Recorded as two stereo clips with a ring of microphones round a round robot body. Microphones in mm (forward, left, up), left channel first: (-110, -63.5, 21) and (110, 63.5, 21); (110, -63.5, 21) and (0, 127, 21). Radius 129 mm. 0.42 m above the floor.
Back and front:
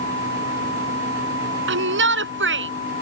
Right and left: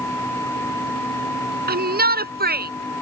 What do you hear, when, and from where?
1.7 s a shout: 75° left